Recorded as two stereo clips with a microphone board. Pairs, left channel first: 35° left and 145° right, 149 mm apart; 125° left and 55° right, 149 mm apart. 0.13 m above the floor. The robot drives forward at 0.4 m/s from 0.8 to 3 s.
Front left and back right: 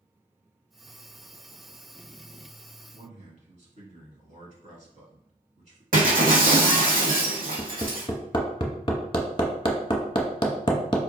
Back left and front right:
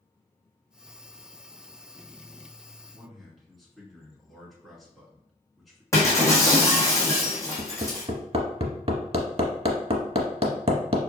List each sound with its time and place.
2.9 s a man speaking: 145° right, 1.5 m
5.9 s breaking glass: 165° right, 1.4 m
7.6 s hammering: 15° right, 0.7 m